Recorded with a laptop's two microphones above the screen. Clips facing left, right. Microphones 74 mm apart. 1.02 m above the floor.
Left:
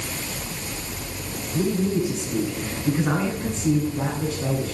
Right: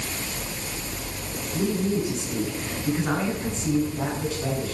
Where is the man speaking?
5° left (ahead or behind), 9 m.